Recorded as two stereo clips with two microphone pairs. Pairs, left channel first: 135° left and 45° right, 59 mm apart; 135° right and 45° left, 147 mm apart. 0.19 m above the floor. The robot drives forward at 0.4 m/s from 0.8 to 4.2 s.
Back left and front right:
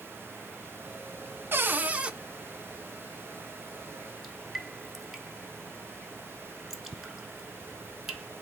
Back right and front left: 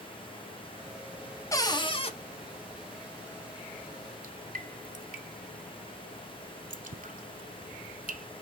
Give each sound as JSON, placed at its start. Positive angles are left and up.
{"t": 1.5, "sound": "a cupboard door", "azimuth_deg": -70, "distance_m": 0.5}
{"t": 4.2, "sound": "dripping", "azimuth_deg": 35, "distance_m": 0.6}